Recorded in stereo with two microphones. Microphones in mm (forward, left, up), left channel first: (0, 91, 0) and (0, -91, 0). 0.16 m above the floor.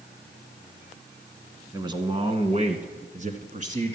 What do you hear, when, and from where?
1.7 s a man speaking: 20° right (ahead or behind), 1.5 m; by 4.0 s 45° right (ahead or behind), 1.9 m